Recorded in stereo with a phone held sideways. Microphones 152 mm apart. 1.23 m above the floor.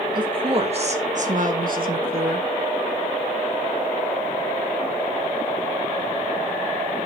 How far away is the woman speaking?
About 2 m.